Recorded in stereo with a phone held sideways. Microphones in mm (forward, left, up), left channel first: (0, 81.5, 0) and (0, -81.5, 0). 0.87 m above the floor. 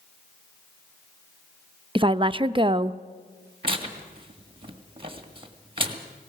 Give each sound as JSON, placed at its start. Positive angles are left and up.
{"t": 1.9, "sound": "a woman speaking", "side_deg": -30, "distance_m": 0.5}
{"t": 3.6, "sound": "tearing paper", "side_deg": -30, "distance_m": 1.8}